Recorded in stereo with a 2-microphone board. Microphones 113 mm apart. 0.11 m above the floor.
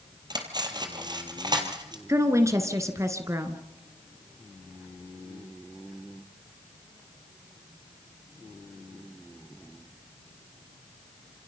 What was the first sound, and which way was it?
Cutlery clinking, 40° right (ahead or behind).